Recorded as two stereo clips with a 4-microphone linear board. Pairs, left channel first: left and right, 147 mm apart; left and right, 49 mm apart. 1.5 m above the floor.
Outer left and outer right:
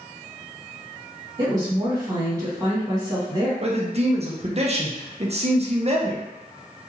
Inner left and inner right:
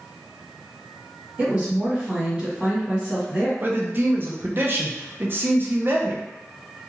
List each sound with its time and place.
1.4 s a woman speaking: 25° right (ahead or behind), 1.8 m
3.6 s a man speaking: 40° right (ahead or behind), 0.6 m